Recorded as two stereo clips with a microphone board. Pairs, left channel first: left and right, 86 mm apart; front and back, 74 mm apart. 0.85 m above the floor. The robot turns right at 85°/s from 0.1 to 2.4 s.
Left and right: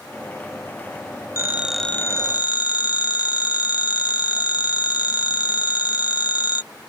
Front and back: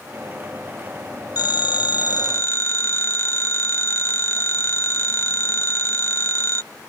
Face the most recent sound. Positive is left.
turn(degrees=55)